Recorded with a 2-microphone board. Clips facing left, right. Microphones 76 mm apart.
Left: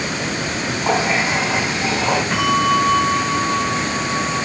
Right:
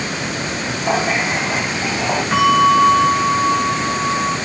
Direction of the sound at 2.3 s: 10° right (ahead or behind).